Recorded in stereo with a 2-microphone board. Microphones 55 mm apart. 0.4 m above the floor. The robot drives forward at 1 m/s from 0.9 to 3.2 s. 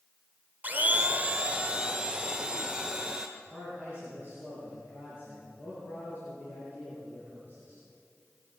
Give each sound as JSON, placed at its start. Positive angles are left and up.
{"t": 0.6, "sound": "a blender", "side_deg": -30, "distance_m": 0.6}
{"t": 3.4, "sound": "a man speaking", "side_deg": 40, "distance_m": 6.0}